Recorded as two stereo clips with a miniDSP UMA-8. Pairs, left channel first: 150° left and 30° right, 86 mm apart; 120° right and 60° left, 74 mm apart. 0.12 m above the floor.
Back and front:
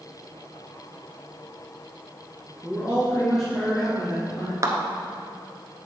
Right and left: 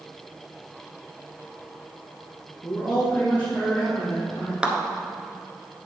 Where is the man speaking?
145° right, 1.9 m; by 4.5 s 170° left, 3.5 m.